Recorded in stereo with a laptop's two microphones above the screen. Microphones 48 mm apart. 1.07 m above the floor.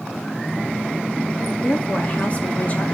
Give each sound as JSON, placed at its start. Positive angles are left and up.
{"t": 1.6, "sound": "a woman speaking", "side_deg": 30, "distance_m": 2.0}